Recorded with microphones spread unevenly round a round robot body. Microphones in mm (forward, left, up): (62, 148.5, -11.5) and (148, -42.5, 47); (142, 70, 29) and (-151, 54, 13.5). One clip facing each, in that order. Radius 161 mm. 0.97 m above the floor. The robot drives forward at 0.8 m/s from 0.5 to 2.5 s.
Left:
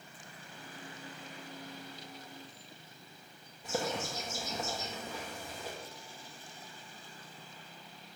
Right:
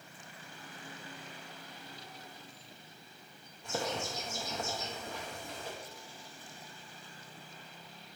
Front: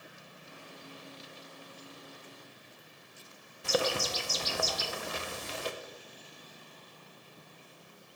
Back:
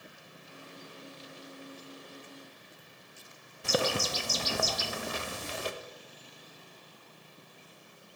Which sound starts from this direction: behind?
A bird, at 3.6 s.